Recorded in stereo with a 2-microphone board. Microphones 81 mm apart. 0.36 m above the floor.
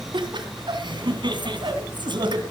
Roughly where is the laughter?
Right.